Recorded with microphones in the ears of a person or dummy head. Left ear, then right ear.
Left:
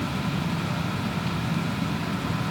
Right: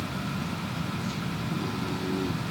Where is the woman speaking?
No woman speaking in this recording.